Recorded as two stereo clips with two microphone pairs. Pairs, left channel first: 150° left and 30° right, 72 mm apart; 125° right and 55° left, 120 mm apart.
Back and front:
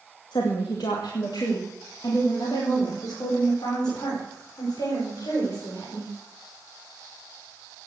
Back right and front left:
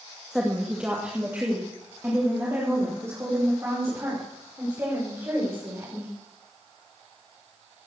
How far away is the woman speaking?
About 2 m.